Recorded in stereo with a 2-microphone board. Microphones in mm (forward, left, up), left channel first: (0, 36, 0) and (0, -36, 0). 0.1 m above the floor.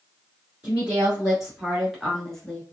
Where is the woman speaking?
15° right (ahead or behind), 1.4 m; by 2.6 s 5° left (ahead or behind), 1.1 m.